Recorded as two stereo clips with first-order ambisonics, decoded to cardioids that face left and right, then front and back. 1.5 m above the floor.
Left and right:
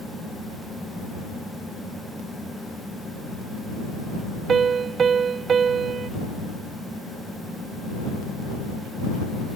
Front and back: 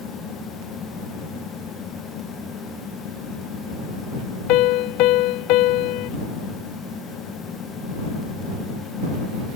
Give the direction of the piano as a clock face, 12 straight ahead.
1 o'clock.